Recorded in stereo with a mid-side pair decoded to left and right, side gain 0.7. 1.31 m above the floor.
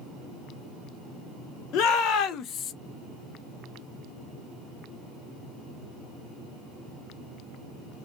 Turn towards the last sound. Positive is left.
turn(degrees=40)